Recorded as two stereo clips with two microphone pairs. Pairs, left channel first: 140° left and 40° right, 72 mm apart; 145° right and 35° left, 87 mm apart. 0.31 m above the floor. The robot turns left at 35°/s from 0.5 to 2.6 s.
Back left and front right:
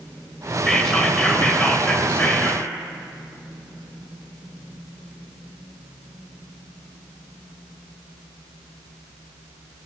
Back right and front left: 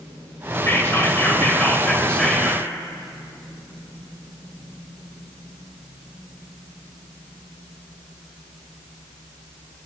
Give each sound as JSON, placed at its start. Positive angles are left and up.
{"t": 0.7, "sound": "whispering", "azimuth_deg": -150, "distance_m": 1.3}